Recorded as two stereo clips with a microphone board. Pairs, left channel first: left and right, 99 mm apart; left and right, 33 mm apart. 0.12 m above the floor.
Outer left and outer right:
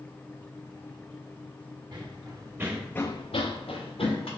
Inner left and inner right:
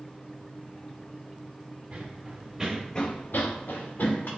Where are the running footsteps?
45° right (ahead or behind), 1.8 m; by 4.3 s 75° left (ahead or behind), 2 m.